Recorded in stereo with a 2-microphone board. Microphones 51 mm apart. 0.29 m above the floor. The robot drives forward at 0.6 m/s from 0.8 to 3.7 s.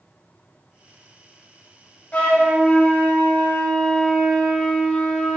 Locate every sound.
2.1 s a flute: 30° left (ahead or behind), 1.3 m; by 5.4 s 20° left (ahead or behind), 1.9 m